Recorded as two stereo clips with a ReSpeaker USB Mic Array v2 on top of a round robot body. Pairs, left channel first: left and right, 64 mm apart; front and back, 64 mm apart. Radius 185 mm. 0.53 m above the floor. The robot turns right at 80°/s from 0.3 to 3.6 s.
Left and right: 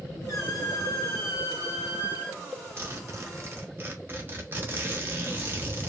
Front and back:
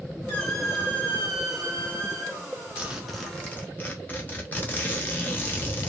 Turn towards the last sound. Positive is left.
turn(degrees=-50)